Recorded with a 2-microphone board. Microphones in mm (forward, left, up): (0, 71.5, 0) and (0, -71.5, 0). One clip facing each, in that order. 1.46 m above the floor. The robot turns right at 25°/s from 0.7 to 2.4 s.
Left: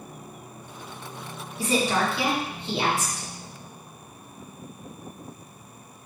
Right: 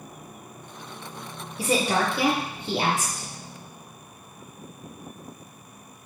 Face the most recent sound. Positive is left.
turn(degrees=-45)  # may be behind; listen again after turning